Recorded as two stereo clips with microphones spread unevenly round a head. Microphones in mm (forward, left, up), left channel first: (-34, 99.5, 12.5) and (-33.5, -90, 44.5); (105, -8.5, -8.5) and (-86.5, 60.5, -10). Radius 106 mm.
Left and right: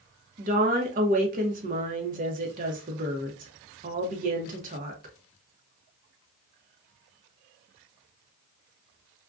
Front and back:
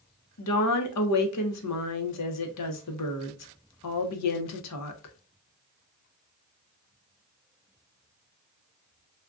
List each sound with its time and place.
0.4 s a woman speaking: 35° right, 0.7 m